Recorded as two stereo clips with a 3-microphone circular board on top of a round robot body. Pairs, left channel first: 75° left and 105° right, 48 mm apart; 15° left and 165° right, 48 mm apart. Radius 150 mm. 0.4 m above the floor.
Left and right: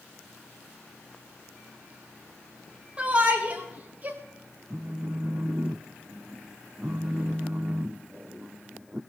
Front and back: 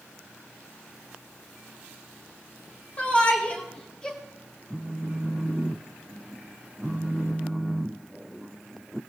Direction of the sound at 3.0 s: 40° right.